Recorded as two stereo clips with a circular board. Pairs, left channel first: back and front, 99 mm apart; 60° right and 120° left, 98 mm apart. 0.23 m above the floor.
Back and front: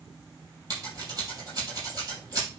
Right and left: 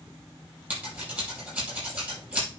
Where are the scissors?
50° left, 6.5 m.